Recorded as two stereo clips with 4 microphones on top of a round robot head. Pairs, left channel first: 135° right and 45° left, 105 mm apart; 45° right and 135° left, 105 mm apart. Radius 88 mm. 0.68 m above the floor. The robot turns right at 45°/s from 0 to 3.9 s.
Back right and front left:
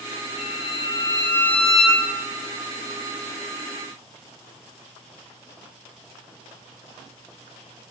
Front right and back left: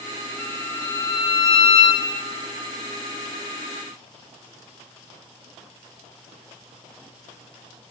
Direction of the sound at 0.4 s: 120° right.